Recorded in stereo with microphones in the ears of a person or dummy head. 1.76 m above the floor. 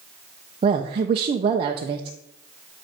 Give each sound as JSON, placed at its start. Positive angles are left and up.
{"t": 0.6, "sound": "a woman speaking", "side_deg": -35, "distance_m": 1.0}